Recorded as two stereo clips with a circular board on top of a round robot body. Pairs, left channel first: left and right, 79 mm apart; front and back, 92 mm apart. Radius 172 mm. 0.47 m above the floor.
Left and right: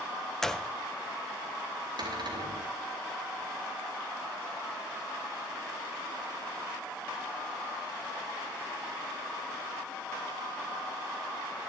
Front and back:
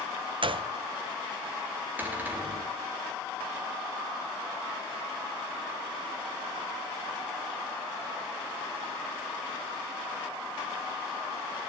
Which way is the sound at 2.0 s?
110° right.